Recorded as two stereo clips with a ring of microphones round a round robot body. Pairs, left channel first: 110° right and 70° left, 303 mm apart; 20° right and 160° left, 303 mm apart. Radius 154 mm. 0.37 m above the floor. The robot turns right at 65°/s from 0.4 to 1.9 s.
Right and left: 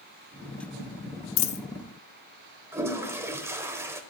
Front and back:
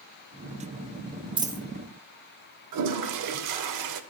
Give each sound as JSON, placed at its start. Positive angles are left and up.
{"t": 1.4, "sound": "a dropped coin", "azimuth_deg": -135, "distance_m": 0.6}
{"t": 2.7, "sound": "a toilet flushing", "azimuth_deg": 150, "distance_m": 0.6}